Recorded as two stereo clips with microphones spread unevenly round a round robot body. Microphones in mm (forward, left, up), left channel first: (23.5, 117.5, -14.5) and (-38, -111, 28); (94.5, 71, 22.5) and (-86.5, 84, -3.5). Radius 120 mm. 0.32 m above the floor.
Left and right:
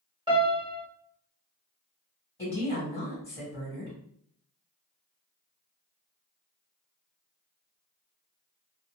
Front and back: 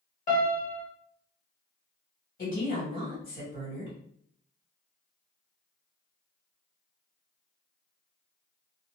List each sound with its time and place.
0.3 s a piano: 35° right, 1.0 m
2.4 s a woman speaking: 10° left, 1.8 m